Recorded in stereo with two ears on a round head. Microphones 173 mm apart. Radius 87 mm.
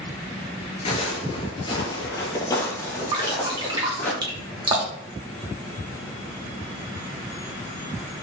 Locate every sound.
0.8 s footsteps: 30° left (ahead or behind), 1.1 m; by 4.1 s 10° left (ahead or behind), 2.5 m
3.1 s dripping: 25° right (ahead or behind), 1.1 m